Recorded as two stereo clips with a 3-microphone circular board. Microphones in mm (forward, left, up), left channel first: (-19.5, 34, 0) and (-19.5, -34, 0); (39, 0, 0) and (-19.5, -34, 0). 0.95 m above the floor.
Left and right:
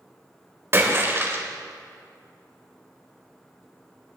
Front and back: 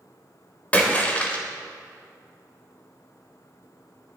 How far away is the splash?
About 1.9 m.